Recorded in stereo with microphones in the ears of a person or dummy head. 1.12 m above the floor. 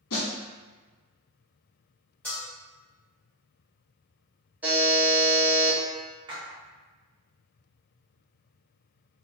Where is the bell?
5° left (ahead or behind), 0.6 m.